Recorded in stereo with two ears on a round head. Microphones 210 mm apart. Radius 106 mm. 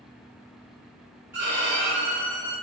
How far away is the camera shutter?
I don't hear a camera shutter.